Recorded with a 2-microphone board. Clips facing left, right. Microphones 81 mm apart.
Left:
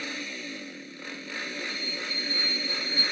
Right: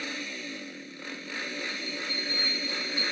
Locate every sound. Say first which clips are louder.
1.7 s a bell: even; 60° right (ahead or behind), 5.5 m